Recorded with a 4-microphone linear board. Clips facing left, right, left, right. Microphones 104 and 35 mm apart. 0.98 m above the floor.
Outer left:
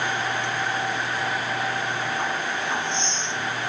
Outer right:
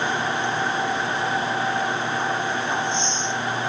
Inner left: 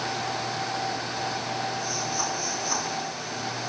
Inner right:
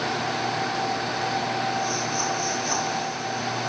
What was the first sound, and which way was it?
Only background noise.